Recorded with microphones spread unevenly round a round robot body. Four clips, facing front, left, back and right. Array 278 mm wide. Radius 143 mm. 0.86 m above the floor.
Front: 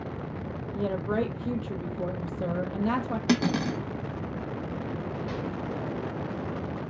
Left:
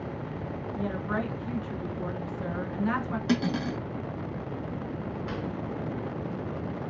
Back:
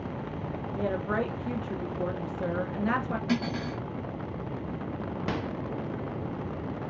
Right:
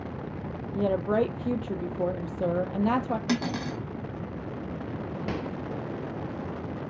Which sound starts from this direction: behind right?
A microwave, at 5.3 s.